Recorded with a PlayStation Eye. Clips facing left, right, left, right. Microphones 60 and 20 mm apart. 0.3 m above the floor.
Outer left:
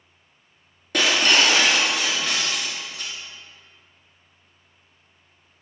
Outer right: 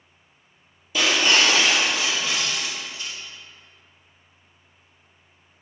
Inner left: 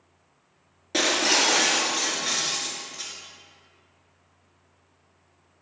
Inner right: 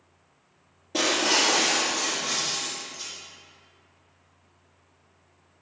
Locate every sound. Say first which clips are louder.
0.9 s breaking glass: outer left 1 dB, inner left 1 dB; 75° left (ahead or behind), 2 m